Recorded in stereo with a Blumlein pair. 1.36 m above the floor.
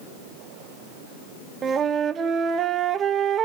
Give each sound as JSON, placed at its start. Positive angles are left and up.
{"t": 1.6, "sound": "a flute", "azimuth_deg": -25, "distance_m": 0.9}